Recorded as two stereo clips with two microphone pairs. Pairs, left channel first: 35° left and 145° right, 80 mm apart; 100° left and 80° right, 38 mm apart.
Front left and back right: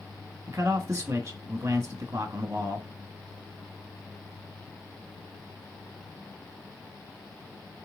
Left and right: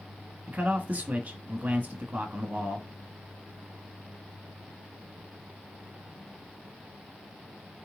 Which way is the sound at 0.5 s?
100° right.